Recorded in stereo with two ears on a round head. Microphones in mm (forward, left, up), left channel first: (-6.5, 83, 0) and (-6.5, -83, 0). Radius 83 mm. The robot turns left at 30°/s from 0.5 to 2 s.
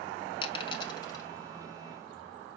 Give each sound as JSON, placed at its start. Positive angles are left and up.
{"t": 0.4, "sound": "a dropped coin", "side_deg": 30, "distance_m": 0.8}